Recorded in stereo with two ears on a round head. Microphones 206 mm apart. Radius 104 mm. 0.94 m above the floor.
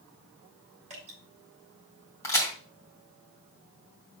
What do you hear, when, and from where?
0.9 s dripping: 30° right (ahead or behind), 3.5 m
2.2 s a crack: 10° left (ahead or behind), 3 m